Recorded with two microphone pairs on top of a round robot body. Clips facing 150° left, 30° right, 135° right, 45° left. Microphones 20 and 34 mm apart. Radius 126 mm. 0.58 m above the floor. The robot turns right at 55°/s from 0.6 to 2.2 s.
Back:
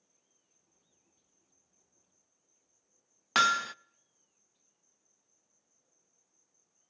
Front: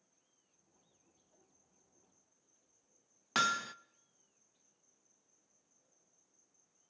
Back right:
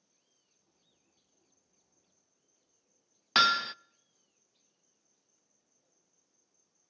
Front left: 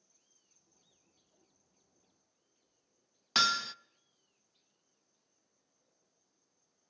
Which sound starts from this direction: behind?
Hammering, at 3.4 s.